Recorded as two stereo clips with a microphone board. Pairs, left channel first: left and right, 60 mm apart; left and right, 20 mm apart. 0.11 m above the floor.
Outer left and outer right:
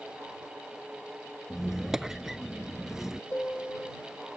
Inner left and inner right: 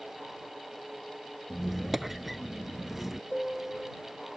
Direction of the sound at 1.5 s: 5° right (ahead or behind).